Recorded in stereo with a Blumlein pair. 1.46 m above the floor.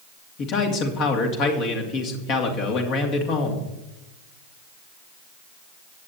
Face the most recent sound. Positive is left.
turn(degrees=35)